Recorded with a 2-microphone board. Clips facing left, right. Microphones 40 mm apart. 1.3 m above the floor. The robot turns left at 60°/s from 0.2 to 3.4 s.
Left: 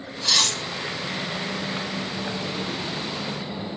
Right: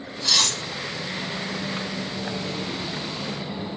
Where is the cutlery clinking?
20° left (ahead or behind), 0.7 m; by 0.6 s 5° left (ahead or behind), 0.7 m.